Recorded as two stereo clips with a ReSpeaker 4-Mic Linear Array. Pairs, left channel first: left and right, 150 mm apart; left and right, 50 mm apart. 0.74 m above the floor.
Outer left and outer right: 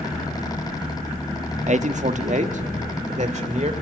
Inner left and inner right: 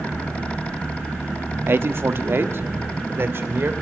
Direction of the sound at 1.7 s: 50° right (ahead or behind).